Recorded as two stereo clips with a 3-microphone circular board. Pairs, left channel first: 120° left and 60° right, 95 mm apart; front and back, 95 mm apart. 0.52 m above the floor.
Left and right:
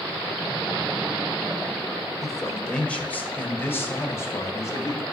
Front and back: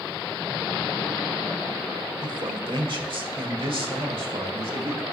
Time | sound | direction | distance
2.2 | a man speaking | 150° right | 1.6 m